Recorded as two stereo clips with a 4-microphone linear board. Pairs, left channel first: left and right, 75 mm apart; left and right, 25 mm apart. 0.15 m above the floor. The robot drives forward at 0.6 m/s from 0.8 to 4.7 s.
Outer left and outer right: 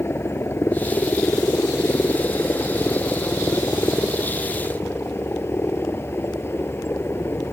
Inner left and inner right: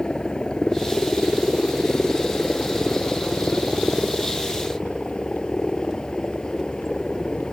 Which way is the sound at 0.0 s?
35° left (ahead or behind).